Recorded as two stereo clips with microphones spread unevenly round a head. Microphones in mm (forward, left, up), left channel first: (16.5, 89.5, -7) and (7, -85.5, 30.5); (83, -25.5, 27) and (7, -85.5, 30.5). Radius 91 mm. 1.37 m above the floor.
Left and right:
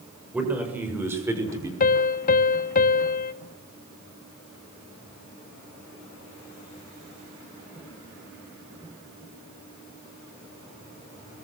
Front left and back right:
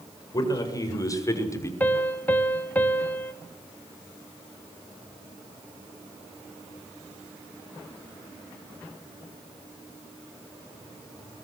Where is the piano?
110° left, 0.8 m.